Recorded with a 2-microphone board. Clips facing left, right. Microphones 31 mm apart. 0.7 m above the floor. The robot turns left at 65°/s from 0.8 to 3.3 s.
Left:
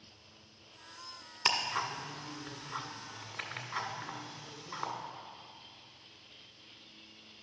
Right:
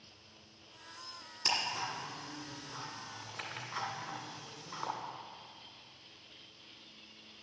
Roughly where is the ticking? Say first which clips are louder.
Left 3 dB; left.